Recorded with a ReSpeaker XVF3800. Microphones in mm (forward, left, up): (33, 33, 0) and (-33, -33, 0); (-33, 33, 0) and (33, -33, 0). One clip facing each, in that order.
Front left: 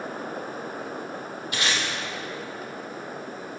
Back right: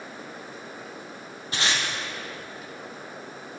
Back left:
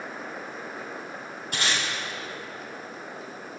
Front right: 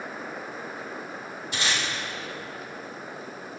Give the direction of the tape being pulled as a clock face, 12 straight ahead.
6 o'clock.